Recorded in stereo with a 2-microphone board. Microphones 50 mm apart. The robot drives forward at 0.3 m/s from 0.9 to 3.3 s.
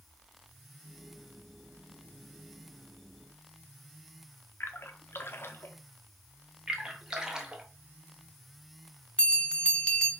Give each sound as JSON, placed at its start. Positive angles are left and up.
{"t": 4.6, "sound": "a splash", "side_deg": 50, "distance_m": 0.6}
{"t": 6.7, "sound": "a splash", "side_deg": -10, "distance_m": 0.8}
{"t": 9.2, "sound": "a bell", "side_deg": 20, "distance_m": 0.9}